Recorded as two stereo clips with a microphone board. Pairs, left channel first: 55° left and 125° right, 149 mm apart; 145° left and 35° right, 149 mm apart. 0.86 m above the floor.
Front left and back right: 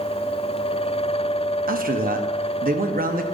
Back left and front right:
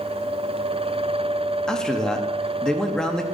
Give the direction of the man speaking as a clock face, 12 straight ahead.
4 o'clock.